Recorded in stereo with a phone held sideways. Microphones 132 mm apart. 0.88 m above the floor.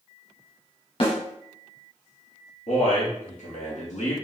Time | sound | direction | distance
1.0 | a snare drum | 50° left (ahead or behind) | 1.1 m
2.7 | a man speaking | 65° left (ahead or behind) | 1.5 m